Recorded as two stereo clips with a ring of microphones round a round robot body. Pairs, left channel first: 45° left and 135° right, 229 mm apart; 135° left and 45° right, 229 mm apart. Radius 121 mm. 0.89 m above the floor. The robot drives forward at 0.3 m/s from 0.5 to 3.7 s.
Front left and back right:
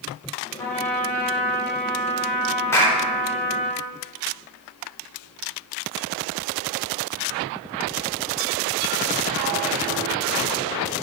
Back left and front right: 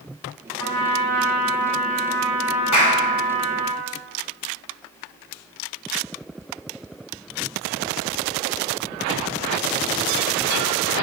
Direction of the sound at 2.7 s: 125° left.